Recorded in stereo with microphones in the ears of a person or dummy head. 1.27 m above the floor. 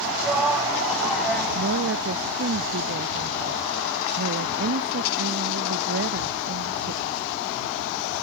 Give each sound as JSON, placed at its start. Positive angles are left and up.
{"t": 0.2, "sound": "a shout", "side_deg": -5}
{"t": 1.6, "sound": "a woman speaking", "side_deg": -65}